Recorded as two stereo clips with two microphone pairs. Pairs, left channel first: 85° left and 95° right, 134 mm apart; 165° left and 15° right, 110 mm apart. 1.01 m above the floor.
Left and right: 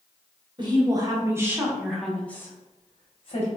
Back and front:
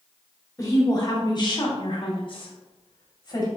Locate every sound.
0.6 s a woman speaking: 145° right, 1.3 m; by 3.5 s 120° left, 1.0 m